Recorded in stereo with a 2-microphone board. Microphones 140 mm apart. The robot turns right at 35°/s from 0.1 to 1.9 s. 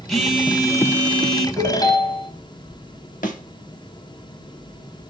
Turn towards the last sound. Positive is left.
turn(degrees=70)  # may be behind; listen again after turning